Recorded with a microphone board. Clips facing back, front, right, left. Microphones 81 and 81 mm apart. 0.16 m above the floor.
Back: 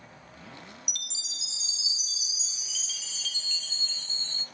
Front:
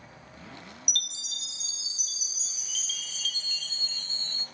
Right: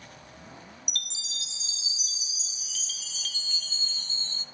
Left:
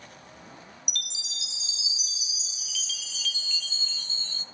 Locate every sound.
0.9 s a chime: 40° right, 0.6 m